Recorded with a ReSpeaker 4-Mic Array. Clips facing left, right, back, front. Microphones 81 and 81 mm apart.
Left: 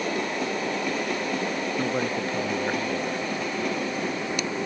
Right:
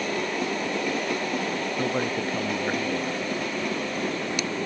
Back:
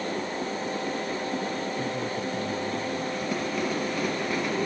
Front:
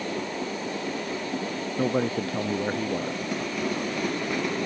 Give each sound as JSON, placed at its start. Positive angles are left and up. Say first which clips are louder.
{"t": 1.8, "sound": "a man speaking", "louder": "right 1 dB, front 5 dB", "azimuth_deg": 0}